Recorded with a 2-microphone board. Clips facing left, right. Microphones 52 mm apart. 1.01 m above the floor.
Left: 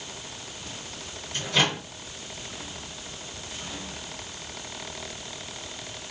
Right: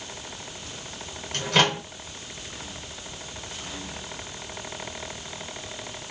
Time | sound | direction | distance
1.3 | a microwave | 65° right (ahead or behind) | 1.1 m